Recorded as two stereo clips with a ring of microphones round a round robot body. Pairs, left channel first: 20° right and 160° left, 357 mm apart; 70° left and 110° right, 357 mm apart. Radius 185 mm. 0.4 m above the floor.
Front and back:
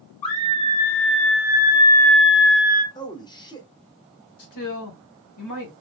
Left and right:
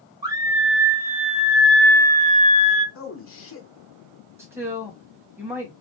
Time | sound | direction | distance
0.2 | a scream | 35° right | 1.8 m
3.0 | a man speaking | 50° left | 1.0 m
4.4 | a man speaking | 30° right | 1.9 m